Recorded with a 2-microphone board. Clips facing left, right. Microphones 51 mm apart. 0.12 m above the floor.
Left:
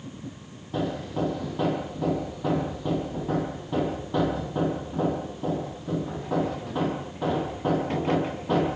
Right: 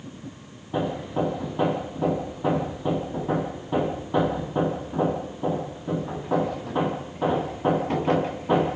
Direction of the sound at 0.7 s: 20° right (ahead or behind).